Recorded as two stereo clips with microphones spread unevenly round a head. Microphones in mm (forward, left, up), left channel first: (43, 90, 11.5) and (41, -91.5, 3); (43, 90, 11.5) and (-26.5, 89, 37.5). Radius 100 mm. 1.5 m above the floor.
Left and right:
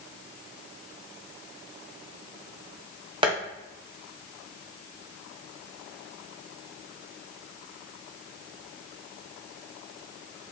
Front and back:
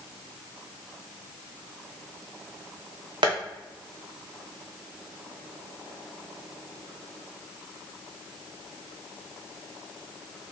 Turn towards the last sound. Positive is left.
turn(degrees=-160)